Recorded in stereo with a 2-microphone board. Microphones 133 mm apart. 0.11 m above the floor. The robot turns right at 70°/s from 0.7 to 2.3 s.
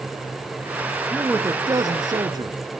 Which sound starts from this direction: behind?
A man speaking, at 1.1 s.